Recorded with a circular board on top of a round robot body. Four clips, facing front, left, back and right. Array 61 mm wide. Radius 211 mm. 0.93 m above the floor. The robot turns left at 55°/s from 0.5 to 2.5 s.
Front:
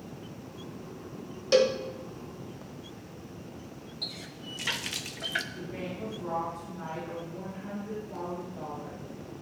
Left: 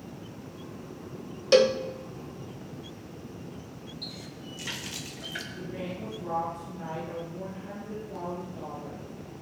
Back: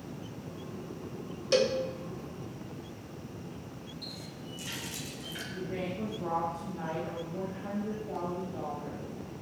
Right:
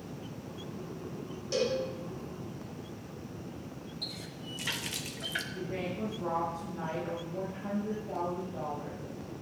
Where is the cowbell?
80° left, 0.9 m; by 1.8 s 65° left, 0.9 m.